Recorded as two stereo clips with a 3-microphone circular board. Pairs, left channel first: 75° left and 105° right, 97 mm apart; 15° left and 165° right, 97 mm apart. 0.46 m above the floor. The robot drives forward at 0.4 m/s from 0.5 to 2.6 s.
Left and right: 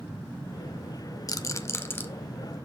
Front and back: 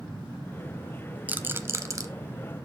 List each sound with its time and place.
1.3 s a rattle: 120° left, 0.6 m; by 2.0 s 140° left, 0.8 m